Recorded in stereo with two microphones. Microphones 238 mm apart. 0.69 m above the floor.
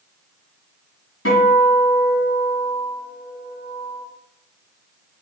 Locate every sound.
1.2 s a guitar: 65° left (ahead or behind), 3.5 m